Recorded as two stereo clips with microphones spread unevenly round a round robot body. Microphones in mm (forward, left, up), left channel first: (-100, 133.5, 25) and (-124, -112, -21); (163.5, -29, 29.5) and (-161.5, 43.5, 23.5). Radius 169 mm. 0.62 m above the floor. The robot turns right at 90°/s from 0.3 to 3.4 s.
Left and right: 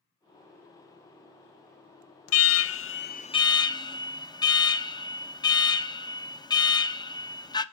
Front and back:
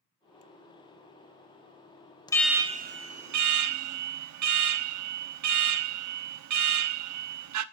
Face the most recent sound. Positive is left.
turn(degrees=165)